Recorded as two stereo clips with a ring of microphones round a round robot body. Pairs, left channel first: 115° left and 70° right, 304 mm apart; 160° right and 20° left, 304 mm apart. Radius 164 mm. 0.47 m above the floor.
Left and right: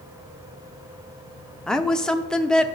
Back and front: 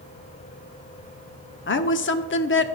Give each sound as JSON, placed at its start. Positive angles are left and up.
{"t": 1.7, "sound": "a woman speaking", "azimuth_deg": -160, "distance_m": 0.8}